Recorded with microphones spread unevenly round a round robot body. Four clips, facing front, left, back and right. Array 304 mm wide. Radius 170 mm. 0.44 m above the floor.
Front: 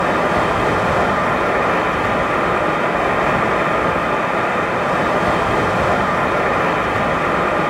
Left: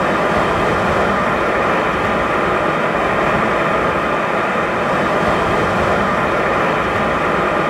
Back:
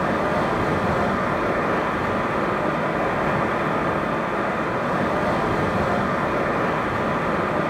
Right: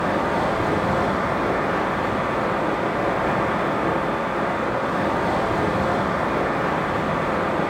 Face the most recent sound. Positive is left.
turn(degrees=75)